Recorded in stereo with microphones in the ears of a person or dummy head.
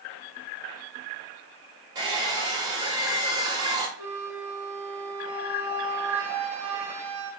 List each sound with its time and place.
1.9 s a hair dryer: 25° right (ahead or behind), 1.1 m
4.0 s a flute: 10° right (ahead or behind), 1.4 m